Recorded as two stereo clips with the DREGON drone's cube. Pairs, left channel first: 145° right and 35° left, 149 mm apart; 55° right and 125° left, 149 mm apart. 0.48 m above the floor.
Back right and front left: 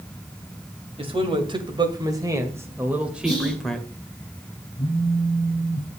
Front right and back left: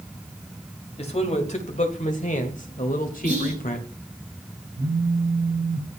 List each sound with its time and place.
1.0 s a man speaking: 15° right, 2 m; by 3.9 s 65° right, 1.6 m
3.2 s whispering: 95° left, 4.5 m
4.8 s a phone buzzing: 165° left, 1.3 m